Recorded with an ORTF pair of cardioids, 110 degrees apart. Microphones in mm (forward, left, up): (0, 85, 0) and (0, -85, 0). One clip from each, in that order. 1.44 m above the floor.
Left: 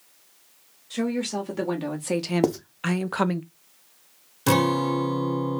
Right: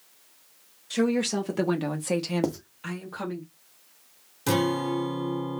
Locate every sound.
0.9 s a woman speaking: 30° right, 1.0 m; by 3.4 s 80° left, 0.6 m
2.4 s writing: 20° left, 0.6 m
4.5 s a guitar: 25° left, 0.8 m